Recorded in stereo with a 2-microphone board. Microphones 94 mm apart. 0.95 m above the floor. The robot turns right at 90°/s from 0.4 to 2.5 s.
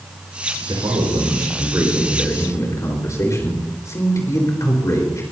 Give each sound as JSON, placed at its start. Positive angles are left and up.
{"t": 0.7, "sound": "a man speaking", "azimuth_deg": -130, "distance_m": 4.5}